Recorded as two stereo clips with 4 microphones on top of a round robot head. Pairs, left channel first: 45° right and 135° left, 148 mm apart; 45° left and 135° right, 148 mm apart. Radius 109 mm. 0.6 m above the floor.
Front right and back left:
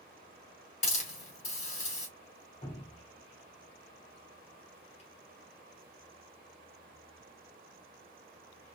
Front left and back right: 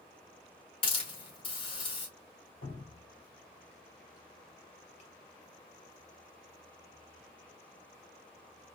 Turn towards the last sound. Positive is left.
turn(degrees=5)